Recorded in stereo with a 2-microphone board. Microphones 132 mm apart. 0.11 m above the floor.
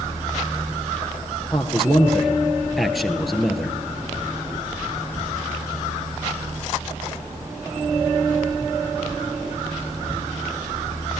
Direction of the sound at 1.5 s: Centre (ahead or behind).